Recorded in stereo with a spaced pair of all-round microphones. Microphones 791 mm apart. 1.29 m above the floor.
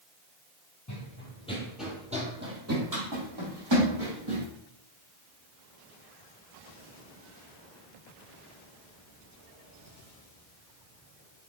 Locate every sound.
0.9 s running footsteps: 20° left (ahead or behind), 1.9 m; by 4.5 s 40° right (ahead or behind), 3.5 m